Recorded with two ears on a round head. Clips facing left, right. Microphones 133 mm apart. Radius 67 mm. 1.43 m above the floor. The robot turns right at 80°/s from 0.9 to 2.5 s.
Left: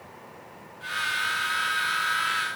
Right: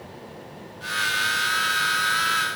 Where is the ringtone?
No ringtone in this recording.